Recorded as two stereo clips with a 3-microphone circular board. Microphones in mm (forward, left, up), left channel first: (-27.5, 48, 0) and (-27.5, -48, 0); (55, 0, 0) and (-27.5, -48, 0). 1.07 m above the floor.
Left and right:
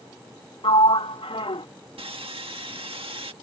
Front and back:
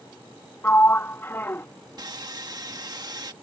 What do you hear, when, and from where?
0.6 s a sliding door: 95° left
2.0 s sawing: 105° right